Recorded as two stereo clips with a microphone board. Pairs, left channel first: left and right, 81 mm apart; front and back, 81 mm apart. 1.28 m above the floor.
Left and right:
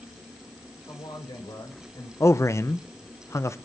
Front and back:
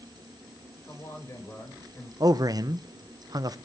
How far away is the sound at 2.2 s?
About 0.9 m.